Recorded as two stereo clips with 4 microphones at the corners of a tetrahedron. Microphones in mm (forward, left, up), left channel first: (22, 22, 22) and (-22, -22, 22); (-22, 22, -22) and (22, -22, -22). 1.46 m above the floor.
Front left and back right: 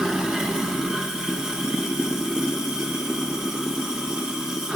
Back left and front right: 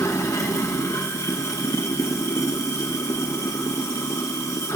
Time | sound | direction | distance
0.0 | running water | 145° left | 0.9 m